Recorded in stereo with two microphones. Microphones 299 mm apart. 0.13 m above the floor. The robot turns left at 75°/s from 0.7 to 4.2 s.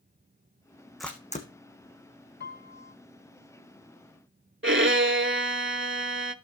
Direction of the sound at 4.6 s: 40° right (ahead or behind).